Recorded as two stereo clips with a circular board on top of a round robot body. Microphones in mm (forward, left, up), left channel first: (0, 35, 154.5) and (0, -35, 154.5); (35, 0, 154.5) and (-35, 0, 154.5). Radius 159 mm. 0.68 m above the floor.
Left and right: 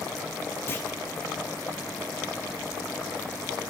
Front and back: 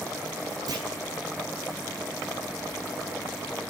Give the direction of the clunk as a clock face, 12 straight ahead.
7 o'clock.